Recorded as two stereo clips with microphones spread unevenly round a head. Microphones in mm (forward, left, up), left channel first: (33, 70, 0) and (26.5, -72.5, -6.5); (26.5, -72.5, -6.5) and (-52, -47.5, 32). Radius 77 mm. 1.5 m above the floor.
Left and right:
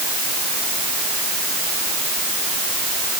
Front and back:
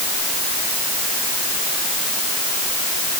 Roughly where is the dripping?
I don't hear dripping.